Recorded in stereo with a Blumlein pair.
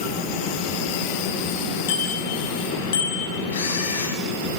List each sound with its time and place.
1.9 s a bicycle bell: 55° left, 7 m; by 3.4 s 60° left, 5.5 m
3.5 s a camera shutter: 65° left, 7.5 m